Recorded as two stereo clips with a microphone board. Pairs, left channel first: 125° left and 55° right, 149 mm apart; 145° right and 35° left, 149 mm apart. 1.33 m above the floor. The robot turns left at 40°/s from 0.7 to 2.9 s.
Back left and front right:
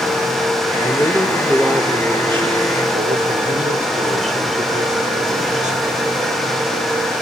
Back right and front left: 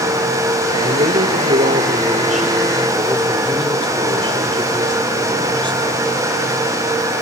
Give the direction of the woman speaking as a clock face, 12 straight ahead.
10 o'clock.